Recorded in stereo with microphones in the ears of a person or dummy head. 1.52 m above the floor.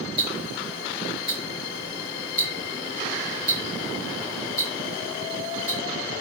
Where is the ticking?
5° right (ahead or behind), 2 m.